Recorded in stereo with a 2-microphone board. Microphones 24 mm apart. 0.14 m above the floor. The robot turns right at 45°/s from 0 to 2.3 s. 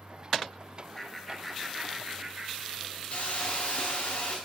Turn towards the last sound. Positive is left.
turn(degrees=40)  # may be behind; listen again after turning